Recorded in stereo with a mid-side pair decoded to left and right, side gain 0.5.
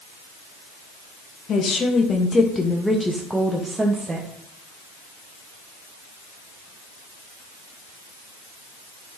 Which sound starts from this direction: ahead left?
A woman speaking, at 1.5 s.